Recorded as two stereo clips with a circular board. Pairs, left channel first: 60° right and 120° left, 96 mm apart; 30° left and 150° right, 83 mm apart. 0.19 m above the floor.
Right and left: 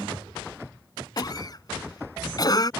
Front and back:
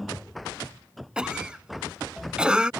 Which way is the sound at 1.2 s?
75° right.